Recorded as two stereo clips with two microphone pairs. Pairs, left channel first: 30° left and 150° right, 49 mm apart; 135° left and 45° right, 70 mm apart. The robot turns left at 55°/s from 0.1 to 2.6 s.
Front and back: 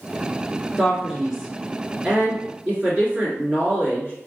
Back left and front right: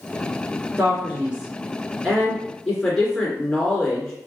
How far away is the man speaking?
About 1.7 m.